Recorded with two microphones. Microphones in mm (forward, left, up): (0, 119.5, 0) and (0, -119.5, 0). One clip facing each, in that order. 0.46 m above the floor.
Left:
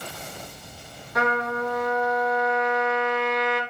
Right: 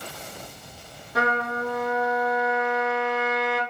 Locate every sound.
1.1 s a trumpet: 30° right (ahead or behind), 3 m